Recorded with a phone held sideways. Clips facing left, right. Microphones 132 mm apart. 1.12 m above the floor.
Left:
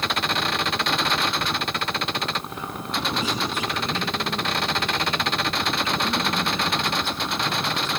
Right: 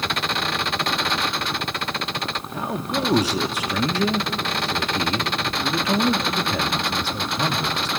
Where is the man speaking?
75° right (ahead or behind), 2.0 m.